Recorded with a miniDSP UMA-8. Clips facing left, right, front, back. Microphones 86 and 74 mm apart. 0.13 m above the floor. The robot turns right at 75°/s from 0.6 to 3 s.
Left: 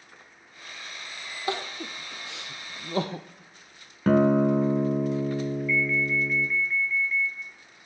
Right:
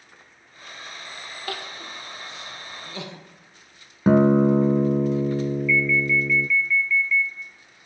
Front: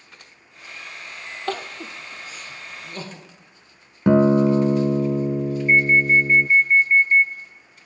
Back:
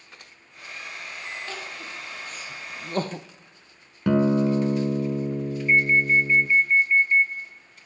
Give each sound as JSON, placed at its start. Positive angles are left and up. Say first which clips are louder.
{"t": 1.5, "sound": "crying", "louder": "left 4 dB, front 7 dB", "azimuth_deg": 25, "distance_m": 1.2}
{"t": 4.1, "sound": "a guitar", "louder": "right 4 dB, front 5 dB", "azimuth_deg": -30, "distance_m": 0.8}
{"t": 5.7, "sound": "an alarm", "louder": "right 4 dB, front 3 dB", "azimuth_deg": 45, "distance_m": 1.7}